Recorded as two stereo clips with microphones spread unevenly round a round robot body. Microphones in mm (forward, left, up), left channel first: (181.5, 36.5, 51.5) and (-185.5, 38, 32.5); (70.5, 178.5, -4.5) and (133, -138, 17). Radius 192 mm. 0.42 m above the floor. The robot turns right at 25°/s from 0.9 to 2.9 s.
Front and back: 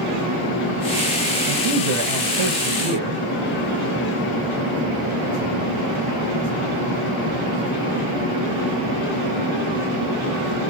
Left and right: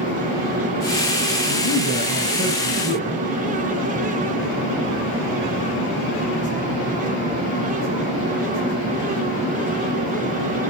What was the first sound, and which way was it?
A man speaking, 160° left.